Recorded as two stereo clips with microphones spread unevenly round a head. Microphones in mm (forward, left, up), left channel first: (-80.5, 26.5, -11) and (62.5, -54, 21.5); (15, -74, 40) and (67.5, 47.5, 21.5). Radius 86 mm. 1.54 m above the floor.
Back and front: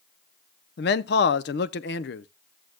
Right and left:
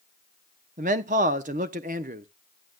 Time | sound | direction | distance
0.8 | a man speaking | 115° left | 0.6 m